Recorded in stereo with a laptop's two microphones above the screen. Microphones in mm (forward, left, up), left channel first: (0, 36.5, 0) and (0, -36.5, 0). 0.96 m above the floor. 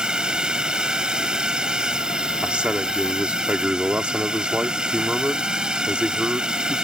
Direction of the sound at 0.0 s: 10° right (ahead or behind).